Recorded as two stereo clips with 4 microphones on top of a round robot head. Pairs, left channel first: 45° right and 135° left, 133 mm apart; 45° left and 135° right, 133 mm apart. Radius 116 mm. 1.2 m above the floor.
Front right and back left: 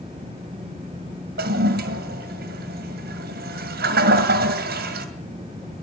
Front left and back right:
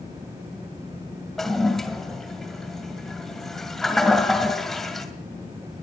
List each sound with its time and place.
1.4 s a toilet flushing: 130° left, 1.9 m